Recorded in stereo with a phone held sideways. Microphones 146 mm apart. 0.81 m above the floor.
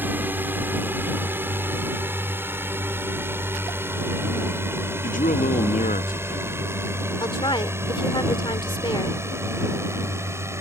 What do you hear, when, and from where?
0.0 s a drone: 15° right (ahead or behind)
5.0 s a man speaking: 60° left (ahead or behind)
7.2 s a woman speaking: 30° left (ahead or behind)